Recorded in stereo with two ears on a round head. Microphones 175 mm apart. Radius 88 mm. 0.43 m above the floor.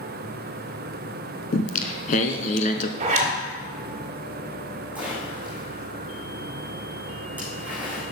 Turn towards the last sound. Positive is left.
turn(degrees=-10)  # may be behind; listen again after turning